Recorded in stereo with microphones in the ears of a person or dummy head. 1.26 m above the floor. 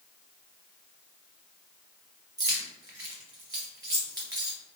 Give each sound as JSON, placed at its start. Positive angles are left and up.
{"t": 2.4, "sound": "keys jangling", "side_deg": -15, "distance_m": 0.9}